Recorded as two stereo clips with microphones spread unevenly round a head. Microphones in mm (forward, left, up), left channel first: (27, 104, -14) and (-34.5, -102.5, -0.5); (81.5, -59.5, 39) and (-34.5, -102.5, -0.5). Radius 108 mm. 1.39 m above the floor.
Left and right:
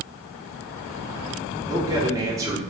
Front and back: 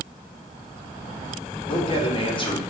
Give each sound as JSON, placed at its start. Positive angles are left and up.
{"t": 1.7, "sound": "a man speaking", "azimuth_deg": -30, "distance_m": 0.9}